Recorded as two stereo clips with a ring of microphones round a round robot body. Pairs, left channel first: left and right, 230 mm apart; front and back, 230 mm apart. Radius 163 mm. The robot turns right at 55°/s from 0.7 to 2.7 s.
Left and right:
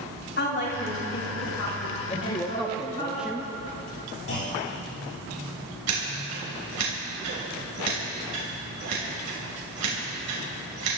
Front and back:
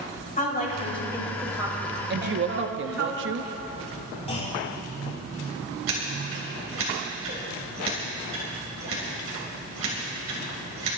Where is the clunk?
65° left, 6 m.